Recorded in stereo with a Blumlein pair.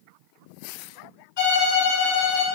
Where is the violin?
50° left, 2 m.